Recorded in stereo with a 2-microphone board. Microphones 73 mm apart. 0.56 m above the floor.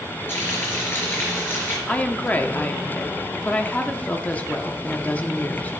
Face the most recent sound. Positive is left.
turn(degrees=20)  # may be behind; listen again after turning